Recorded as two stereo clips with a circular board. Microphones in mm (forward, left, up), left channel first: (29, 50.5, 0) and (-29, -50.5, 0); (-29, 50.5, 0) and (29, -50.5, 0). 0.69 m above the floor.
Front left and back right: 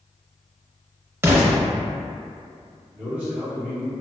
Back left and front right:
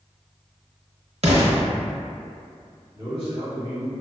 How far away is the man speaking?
About 1.6 m.